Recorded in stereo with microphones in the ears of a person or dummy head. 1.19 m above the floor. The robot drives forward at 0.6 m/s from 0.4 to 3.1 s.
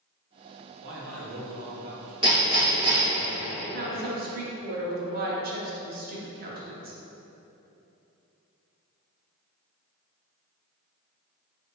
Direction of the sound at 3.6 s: 45° right (ahead or behind).